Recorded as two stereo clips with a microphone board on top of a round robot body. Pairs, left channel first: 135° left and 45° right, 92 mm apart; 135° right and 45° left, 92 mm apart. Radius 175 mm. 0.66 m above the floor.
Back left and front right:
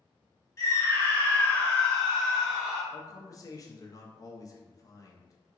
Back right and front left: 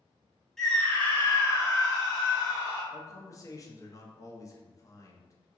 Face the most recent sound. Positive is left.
turn(degrees=180)